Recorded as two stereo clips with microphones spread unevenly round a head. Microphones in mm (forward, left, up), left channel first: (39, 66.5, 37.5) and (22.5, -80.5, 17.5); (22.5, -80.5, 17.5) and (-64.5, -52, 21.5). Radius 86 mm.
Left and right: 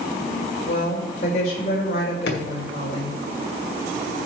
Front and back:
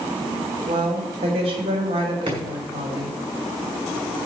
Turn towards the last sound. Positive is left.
turn(degrees=105)